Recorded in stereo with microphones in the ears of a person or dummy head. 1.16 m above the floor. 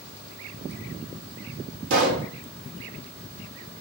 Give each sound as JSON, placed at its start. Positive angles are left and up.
{"t": 1.9, "sound": "a pop", "side_deg": -75, "distance_m": 1.2}